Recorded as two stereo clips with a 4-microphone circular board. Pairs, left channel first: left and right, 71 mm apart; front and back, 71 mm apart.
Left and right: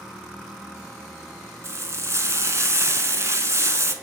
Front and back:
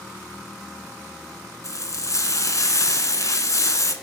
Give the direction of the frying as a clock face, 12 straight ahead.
1 o'clock.